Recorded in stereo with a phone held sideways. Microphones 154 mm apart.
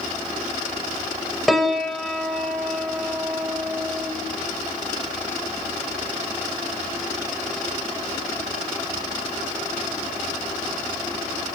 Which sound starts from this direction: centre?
A piano, at 1.5 s.